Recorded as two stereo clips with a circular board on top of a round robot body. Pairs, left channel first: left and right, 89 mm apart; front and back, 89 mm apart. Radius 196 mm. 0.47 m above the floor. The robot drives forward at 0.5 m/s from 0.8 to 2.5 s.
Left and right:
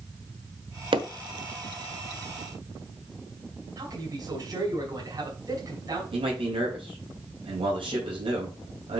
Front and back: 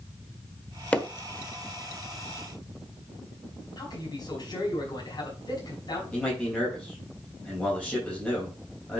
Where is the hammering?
75° right, 1.2 m; by 1.1 s 80° right, 1.2 m.